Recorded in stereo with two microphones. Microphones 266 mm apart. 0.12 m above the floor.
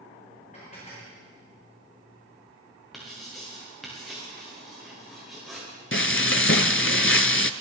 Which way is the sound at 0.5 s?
30° left (ahead or behind).